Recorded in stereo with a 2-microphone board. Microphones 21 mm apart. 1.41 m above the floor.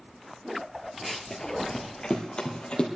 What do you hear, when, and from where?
1.0 s running footsteps: centre (ahead or behind), 1.4 m; by 2.9 s 45° left (ahead or behind), 2 m